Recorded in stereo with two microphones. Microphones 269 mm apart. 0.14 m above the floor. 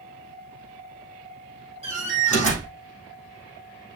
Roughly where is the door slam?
Left.